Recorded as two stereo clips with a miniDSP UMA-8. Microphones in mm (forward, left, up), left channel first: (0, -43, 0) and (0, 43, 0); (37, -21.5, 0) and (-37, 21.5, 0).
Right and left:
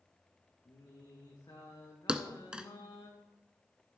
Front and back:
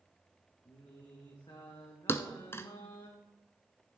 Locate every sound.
0.7 s singing: 55° right, 3.5 m
2.1 s a thud: 15° left, 0.8 m